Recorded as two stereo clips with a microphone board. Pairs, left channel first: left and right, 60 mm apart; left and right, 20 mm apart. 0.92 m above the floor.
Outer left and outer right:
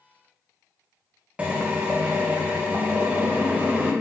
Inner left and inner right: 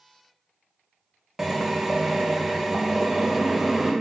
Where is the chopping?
No chopping in this recording.